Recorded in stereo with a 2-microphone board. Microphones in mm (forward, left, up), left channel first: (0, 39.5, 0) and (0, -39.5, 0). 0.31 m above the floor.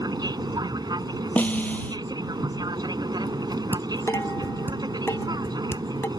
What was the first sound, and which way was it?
An aircraft, 60° right (ahead or behind).